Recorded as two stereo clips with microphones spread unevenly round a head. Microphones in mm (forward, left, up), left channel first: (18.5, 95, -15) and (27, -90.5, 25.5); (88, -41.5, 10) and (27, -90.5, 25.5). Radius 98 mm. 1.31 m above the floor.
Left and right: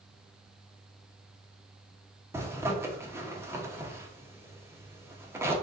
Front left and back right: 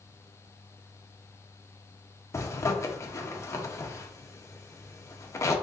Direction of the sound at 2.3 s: 10° right.